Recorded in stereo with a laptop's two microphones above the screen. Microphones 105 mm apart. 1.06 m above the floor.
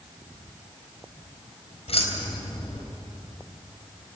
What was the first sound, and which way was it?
Keys jangling, 70° left (ahead or behind).